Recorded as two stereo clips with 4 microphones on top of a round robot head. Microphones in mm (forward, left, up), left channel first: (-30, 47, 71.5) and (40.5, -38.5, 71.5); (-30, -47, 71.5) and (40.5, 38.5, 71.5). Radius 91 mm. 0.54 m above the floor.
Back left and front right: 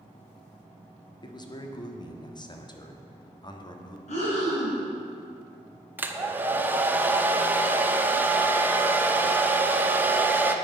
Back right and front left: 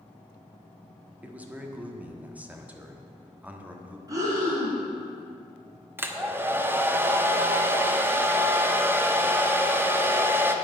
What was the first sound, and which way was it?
A man speaking, 120° left.